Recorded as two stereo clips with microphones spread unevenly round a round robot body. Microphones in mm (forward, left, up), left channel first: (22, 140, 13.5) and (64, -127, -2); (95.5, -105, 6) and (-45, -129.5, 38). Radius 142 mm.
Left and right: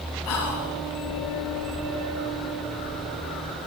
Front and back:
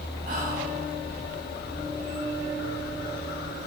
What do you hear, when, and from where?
0.3 s whispering: 125° left, 3 m